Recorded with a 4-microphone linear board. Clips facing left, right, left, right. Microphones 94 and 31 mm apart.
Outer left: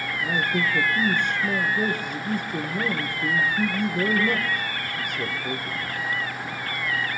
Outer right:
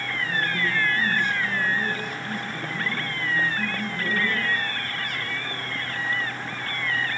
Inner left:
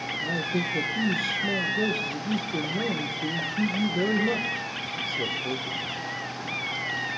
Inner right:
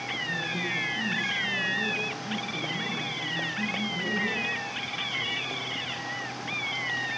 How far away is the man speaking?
About 3.5 m.